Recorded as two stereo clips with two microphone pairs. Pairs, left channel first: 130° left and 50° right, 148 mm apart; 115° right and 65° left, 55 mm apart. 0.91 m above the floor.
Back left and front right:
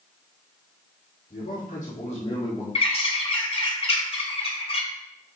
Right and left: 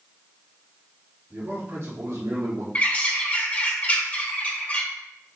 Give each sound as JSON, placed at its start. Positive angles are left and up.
{"t": 1.3, "sound": "a man speaking", "azimuth_deg": 115, "distance_m": 2.0}
{"t": 2.8, "sound": "a bird", "azimuth_deg": -175, "distance_m": 2.0}